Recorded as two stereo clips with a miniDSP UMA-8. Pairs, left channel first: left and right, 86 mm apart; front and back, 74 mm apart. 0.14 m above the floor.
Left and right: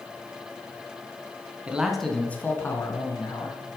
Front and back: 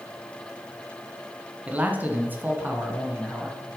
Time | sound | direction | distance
1.7 | a man speaking | 140° right | 1.2 m